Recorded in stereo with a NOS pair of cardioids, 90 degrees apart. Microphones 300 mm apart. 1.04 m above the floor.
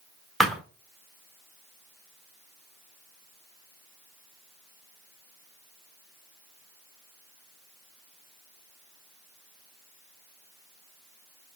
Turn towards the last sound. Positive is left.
turn(degrees=0)